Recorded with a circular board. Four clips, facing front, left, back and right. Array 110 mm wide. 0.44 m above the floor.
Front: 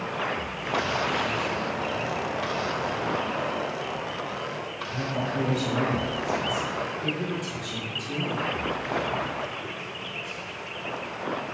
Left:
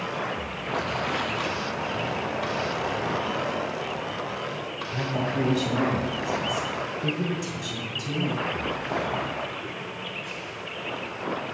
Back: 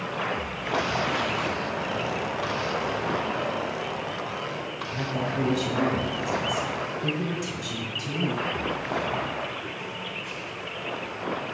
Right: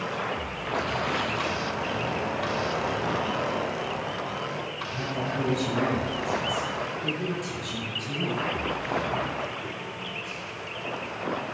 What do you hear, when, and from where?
4.9 s a woman speaking: 110° left, 3 m; by 8.5 s 145° left, 3 m